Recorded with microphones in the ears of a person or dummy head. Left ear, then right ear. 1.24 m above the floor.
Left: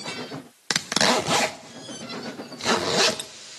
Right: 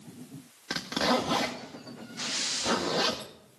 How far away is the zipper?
About 0.8 m.